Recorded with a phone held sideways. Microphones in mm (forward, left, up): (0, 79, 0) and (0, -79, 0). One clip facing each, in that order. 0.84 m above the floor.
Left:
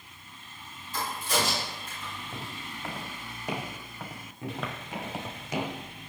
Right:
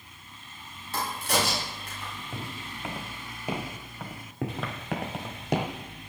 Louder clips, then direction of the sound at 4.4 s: Right 3 dB; 65° right (ahead or behind).